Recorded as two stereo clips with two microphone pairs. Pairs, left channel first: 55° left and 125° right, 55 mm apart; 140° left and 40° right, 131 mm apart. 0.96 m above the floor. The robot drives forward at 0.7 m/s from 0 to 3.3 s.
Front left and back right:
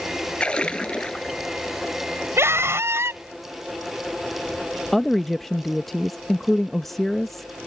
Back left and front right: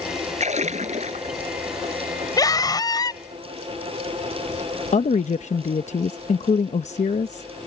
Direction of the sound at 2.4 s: 160° right.